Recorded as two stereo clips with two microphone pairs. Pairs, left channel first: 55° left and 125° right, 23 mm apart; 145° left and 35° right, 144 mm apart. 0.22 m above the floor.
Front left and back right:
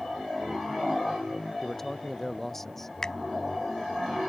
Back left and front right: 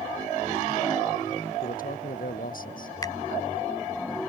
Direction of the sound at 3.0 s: 100° left.